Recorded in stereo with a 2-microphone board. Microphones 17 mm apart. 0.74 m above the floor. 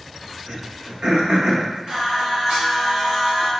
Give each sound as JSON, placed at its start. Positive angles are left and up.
{"t": 0.5, "sound": "throat clearing", "side_deg": -85, "distance_m": 0.8}
{"t": 1.9, "sound": "singing", "side_deg": -65, "distance_m": 1.8}